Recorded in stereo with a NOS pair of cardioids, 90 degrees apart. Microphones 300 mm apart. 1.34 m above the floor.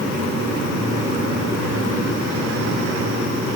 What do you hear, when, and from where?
Only background noise.